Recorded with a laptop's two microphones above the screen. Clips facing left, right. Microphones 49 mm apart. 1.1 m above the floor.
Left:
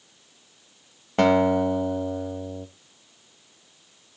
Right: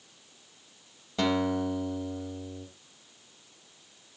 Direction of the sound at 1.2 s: 45° left (ahead or behind).